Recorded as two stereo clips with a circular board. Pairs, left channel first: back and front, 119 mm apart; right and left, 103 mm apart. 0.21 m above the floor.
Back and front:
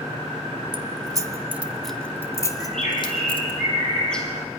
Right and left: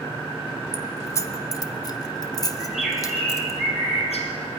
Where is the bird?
95° right, 3.5 m.